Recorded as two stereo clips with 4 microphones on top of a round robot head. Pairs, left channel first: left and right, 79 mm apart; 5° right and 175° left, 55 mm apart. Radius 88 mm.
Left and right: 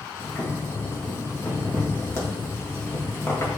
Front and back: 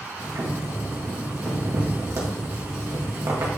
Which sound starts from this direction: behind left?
Boiling, at 0.2 s.